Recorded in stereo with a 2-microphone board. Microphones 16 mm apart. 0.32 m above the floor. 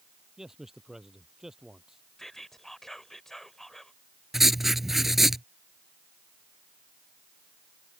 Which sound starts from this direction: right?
A man speaking, at 0.4 s.